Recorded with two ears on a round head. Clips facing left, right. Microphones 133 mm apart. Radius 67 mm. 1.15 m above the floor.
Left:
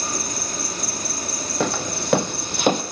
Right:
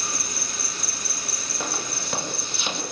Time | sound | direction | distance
0.0 | an insect | 35° left (ahead or behind) | 1.7 m
1.6 | footsteps | 60° left (ahead or behind) | 2.5 m